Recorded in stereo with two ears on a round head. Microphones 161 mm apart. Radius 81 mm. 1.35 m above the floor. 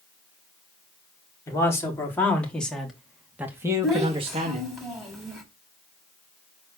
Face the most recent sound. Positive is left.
turn(degrees=0)  # may be behind; listen again after turning